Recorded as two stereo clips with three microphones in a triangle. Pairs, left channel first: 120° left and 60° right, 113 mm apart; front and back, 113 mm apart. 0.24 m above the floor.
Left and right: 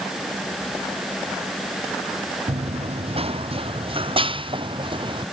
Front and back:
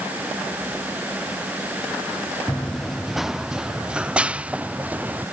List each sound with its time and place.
2.5 s running footsteps: 85° right; by 5.2 s 105° right